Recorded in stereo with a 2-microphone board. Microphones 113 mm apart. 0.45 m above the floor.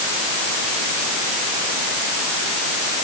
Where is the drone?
No drone in this recording.